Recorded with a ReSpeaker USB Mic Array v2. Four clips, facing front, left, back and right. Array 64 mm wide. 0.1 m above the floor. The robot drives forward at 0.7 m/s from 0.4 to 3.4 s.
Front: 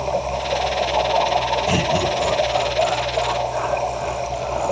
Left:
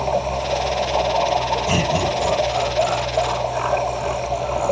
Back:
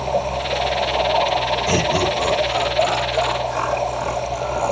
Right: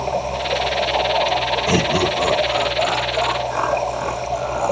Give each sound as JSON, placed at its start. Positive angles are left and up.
{"t": 1.7, "sound": "laughter", "azimuth_deg": -100, "distance_m": 5.5}